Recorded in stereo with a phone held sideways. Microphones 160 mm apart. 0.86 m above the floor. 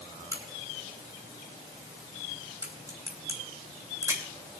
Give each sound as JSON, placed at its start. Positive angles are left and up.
{"t": 0.3, "sound": "a crack", "side_deg": -20, "distance_m": 3.0}